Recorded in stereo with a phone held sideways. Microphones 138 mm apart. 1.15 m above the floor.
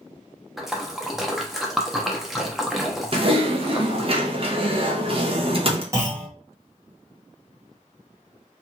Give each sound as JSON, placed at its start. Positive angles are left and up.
{"t": 0.6, "sound": "a splash", "side_deg": 0, "distance_m": 0.6}
{"t": 3.1, "sound": "typing on a keyboard", "side_deg": -40, "distance_m": 0.7}
{"t": 5.9, "sound": "a clunk", "side_deg": -20, "distance_m": 1.1}